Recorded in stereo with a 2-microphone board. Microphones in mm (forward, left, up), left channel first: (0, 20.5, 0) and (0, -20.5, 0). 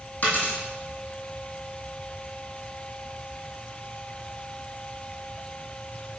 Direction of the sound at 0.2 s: 40° left (ahead or behind).